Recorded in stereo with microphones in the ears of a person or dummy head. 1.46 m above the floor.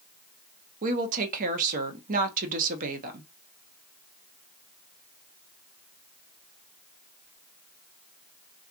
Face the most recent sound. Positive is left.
turn(degrees=-50)  # may be behind; listen again after turning